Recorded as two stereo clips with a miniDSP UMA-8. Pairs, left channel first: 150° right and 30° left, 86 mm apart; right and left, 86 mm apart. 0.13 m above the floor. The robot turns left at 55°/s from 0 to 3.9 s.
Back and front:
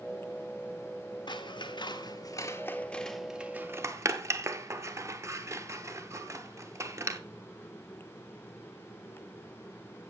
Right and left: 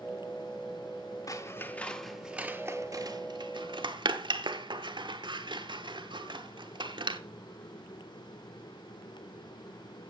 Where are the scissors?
135° right, 0.8 m; by 7.2 s 85° left, 0.8 m.